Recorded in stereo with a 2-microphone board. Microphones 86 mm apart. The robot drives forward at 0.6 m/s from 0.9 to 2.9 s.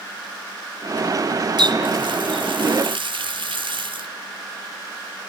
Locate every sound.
1.6 s a running tap: 60° right (ahead or behind), 1.4 m; by 4.1 s 75° right (ahead or behind), 1.3 m